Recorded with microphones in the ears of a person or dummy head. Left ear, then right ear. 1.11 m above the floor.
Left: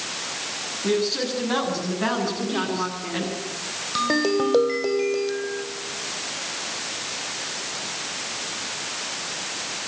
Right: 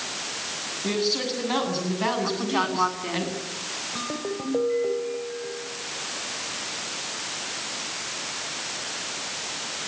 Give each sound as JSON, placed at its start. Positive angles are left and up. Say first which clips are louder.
{"t": 0.8, "sound": "a man speaking", "louder": "left 2 dB", "side_deg": -15, "distance_m": 8.5}
{"t": 2.2, "sound": "a woman speaking", "louder": "right 1 dB", "side_deg": -35, "distance_m": 4.0}
{"t": 4.0, "sound": "a ringtone", "louder": "left 9 dB", "side_deg": 75, "distance_m": 2.0}